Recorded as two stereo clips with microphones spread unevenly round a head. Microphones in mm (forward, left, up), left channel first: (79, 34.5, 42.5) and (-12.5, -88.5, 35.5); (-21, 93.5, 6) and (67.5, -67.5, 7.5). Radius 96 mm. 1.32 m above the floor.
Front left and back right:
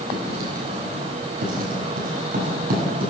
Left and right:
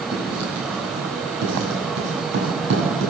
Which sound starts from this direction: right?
Writing, at 0.1 s.